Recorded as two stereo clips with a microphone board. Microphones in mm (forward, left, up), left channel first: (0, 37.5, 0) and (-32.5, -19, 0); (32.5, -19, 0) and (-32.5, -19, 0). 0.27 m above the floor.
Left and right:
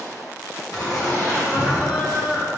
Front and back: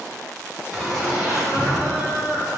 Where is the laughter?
80° left, 1.9 m; by 2.5 s 125° left, 1.9 m.